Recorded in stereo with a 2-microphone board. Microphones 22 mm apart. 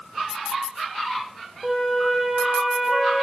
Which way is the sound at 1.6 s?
Centre (ahead or behind).